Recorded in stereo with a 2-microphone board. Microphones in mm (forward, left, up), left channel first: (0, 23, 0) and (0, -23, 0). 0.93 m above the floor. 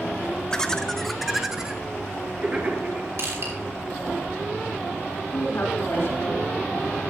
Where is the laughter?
15° left (ahead or behind), 1.0 m; by 3.1 s 40° right (ahead or behind), 1.3 m.